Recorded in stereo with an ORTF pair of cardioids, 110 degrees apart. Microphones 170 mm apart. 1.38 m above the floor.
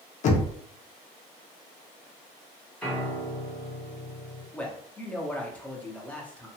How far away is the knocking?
About 0.6 m.